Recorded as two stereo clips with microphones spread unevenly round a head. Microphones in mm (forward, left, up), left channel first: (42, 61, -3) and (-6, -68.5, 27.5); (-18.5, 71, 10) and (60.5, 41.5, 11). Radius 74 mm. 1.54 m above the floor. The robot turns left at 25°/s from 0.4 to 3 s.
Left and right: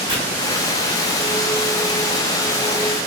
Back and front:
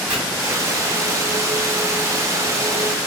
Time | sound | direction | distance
0.1 | chopping | 95° right | 1.9 m